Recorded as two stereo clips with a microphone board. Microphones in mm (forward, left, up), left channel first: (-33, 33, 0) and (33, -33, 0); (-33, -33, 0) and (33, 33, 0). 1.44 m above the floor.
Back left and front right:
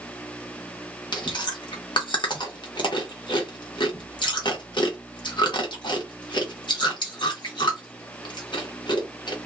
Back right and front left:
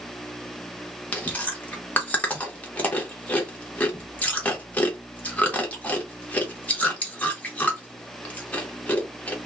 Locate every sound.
1.1 s chewing: 155° left, 0.9 m